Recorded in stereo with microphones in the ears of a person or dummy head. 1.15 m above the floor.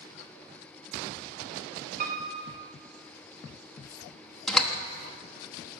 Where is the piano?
40° right (ahead or behind), 0.5 m.